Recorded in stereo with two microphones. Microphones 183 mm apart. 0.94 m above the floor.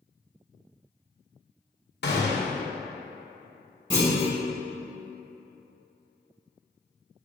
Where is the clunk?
25° right (ahead or behind), 1.4 m.